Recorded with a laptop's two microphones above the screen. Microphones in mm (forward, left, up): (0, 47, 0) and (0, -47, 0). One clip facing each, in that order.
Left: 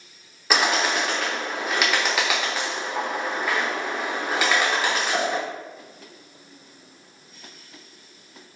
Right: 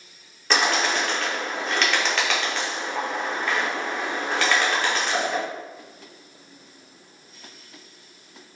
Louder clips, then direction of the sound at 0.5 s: Even; 5° left (ahead or behind).